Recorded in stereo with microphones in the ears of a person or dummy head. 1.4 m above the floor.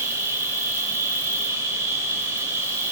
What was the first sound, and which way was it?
An insect, 15° right (ahead or behind).